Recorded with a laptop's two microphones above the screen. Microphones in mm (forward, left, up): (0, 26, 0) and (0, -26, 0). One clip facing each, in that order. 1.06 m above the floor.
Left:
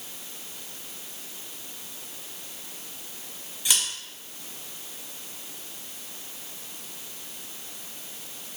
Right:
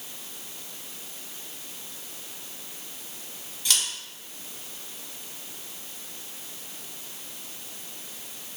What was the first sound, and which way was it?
Scissors, 15° left (ahead or behind).